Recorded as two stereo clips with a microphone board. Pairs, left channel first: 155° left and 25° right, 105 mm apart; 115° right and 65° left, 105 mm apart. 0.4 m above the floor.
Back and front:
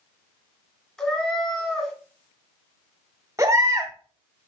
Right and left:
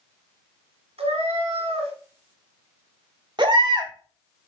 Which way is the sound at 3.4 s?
35° left.